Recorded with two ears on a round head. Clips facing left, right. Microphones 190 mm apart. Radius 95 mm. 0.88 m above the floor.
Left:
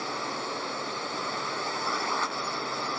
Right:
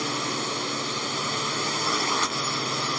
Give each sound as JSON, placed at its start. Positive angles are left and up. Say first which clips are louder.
{"t": 0.0, "sound": "a drone", "louder": "right 5 dB", "side_deg": -45}